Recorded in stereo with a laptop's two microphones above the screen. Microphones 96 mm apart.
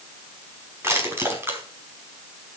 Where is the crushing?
25° right (ahead or behind), 4.5 m.